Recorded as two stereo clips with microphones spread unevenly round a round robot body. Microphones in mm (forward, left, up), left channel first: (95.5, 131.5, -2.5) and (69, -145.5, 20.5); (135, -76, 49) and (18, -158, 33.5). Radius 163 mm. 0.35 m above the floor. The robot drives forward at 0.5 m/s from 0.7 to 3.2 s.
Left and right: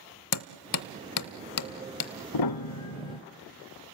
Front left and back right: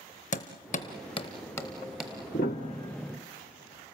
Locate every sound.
0.3 s hammering: 75° left, 0.7 m; by 2.1 s 130° left, 0.9 m
2.3 s a piano: 85° left, 0.6 m; by 3.2 s 125° left, 0.7 m